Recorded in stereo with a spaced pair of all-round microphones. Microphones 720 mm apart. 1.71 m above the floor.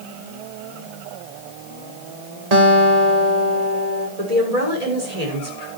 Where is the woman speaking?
55° right (ahead or behind), 6.5 m.